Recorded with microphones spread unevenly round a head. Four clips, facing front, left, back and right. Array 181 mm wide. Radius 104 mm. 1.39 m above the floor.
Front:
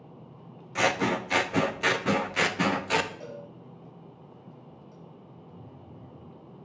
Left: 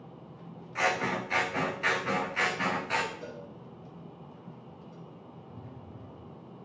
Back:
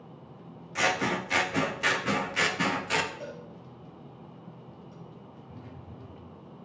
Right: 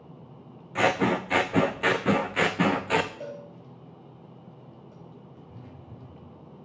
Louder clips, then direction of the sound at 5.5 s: Even, back 2 dB; 150° right.